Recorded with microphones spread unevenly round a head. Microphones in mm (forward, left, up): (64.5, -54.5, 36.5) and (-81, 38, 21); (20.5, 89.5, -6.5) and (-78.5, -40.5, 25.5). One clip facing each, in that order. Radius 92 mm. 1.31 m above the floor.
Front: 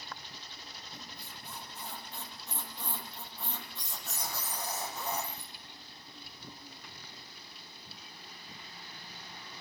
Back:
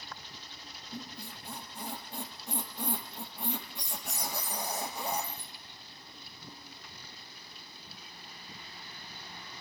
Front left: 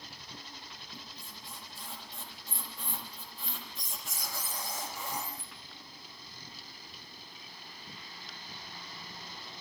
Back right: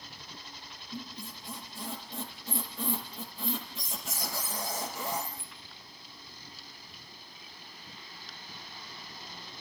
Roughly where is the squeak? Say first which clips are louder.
Back 10 dB, back right 13 dB; behind right.